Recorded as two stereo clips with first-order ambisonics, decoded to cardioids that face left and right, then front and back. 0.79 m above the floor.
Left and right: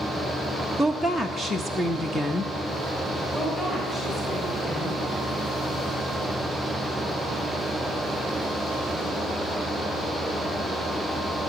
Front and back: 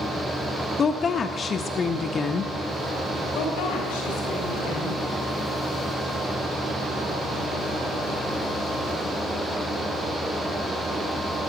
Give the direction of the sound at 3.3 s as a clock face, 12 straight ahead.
12 o'clock.